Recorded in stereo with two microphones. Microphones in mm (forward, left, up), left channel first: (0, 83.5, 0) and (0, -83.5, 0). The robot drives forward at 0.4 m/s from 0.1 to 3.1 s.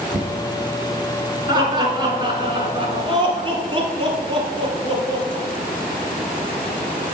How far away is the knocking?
About 2.5 m.